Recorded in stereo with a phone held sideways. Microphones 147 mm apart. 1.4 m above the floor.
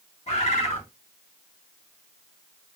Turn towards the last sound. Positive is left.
turn(degrees=45)  # may be behind; listen again after turning